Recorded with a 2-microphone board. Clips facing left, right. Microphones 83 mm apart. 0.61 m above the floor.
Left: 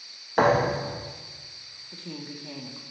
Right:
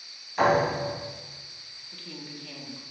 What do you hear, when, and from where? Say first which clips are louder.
0.4 s a thud: left 1 dB; 60° left (ahead or behind), 2.0 m
1.9 s a woman speaking: left 4 dB; 25° left (ahead or behind), 0.7 m